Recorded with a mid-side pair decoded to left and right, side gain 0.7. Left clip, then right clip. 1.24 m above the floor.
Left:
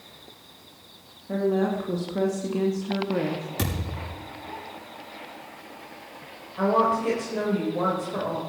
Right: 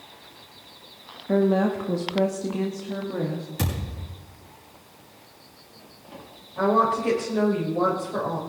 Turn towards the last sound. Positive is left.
turn(degrees=-5)